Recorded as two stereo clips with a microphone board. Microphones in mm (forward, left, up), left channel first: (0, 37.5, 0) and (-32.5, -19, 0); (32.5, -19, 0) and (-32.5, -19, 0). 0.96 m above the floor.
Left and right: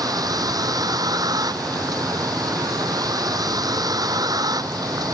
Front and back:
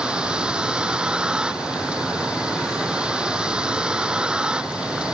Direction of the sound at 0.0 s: 105° right.